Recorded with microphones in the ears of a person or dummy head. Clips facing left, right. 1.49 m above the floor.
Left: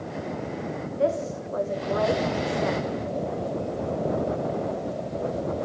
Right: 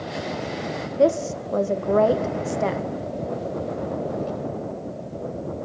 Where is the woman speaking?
50° right (ahead or behind), 1.0 m.